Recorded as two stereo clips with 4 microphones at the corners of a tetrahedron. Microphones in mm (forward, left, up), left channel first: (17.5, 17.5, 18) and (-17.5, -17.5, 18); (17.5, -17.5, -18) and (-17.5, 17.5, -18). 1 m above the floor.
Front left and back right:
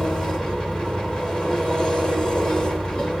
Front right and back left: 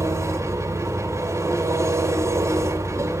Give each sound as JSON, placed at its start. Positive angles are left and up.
{"t": 0.0, "sound": "an engine running", "azimuth_deg": 120, "distance_m": 2.5}